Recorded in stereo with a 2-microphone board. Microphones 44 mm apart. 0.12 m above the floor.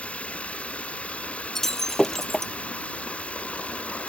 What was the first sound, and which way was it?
Running water, 35° left (ahead or behind).